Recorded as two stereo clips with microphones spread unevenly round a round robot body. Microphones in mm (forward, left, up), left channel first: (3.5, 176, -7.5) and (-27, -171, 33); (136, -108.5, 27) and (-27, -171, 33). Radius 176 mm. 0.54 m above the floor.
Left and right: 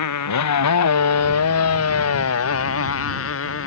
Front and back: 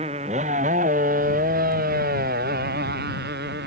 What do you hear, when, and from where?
0.0 s a motorcycle: 130° left; by 3.7 s 140° left